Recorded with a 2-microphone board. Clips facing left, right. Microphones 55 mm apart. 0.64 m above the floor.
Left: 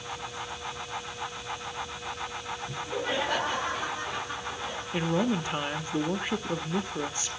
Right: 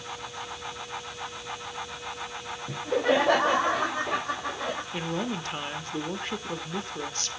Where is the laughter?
75° right (ahead or behind), 2.5 m.